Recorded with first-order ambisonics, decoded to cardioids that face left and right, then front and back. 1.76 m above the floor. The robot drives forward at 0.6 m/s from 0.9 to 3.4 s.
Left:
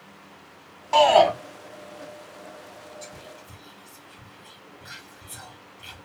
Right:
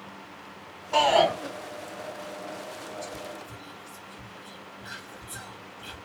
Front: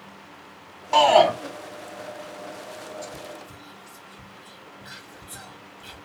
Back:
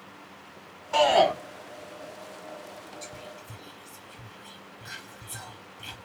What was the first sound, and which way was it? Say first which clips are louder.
A shout: left 5 dB, front 5 dB; 40° left.